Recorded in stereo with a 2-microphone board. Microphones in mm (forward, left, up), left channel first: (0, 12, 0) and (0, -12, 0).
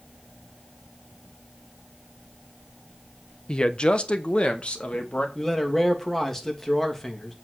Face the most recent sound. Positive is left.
turn(degrees=10)  # may be behind; listen again after turning